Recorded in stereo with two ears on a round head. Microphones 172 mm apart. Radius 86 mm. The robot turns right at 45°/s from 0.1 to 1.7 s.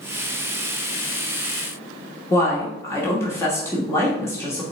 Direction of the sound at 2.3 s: 15° left (ahead or behind).